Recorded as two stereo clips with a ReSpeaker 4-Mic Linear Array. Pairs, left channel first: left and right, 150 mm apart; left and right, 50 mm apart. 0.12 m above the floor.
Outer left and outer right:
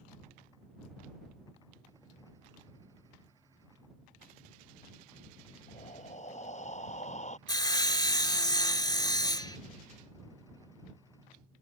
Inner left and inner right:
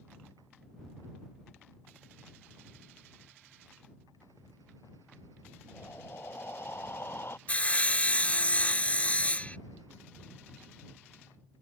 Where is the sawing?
30° left (ahead or behind).